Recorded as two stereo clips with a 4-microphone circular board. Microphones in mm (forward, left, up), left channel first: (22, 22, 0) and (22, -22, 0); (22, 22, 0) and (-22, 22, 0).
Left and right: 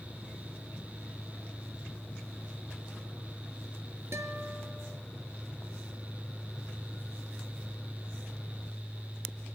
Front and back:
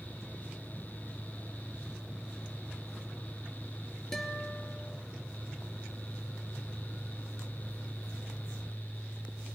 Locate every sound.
4.1 s a guitar: 80° right, 3.5 m